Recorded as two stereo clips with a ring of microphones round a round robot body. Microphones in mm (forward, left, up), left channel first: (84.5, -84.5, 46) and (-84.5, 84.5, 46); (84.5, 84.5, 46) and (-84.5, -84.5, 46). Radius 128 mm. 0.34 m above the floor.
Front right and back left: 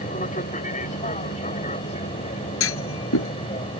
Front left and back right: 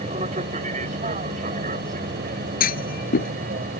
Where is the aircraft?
90° right; by 3.8 s 100° right.